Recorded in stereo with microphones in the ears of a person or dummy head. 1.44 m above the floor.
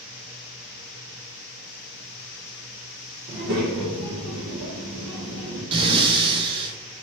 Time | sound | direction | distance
3.3 | a child speaking | 65° right (ahead or behind) | 0.7 m
5.7 | breathing | 30° right (ahead or behind) | 0.7 m